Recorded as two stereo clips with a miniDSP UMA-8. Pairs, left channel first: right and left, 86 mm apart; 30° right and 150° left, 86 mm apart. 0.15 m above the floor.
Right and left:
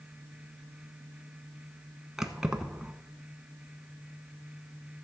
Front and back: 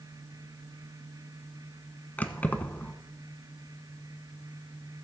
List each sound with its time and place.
2.2 s keys jangling: 15° left, 0.9 m